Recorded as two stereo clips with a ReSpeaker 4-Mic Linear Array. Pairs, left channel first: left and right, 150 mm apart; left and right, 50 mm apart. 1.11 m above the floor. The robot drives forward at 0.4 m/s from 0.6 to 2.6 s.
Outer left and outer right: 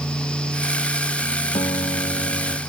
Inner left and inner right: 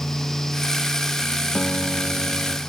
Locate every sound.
1.6 s a guitar: 35° left (ahead or behind)